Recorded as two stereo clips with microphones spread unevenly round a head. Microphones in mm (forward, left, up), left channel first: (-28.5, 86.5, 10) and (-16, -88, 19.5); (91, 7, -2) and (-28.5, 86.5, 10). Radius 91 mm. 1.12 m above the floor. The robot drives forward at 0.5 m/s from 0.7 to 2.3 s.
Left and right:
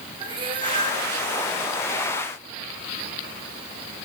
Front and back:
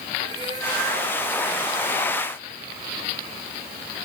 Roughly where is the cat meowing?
Behind right.